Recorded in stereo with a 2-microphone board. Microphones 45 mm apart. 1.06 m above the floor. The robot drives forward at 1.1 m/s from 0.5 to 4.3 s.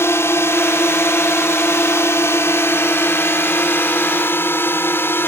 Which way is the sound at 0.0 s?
70° left (ahead or behind).